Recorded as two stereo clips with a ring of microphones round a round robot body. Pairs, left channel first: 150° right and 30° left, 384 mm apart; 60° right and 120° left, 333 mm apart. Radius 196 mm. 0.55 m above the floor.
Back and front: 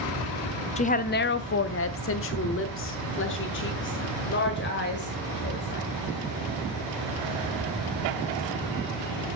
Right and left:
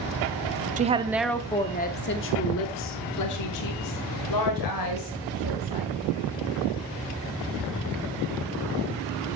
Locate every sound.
0.8 s a woman speaking: 155° left, 0.6 m; by 5.9 s 85° right, 2.5 m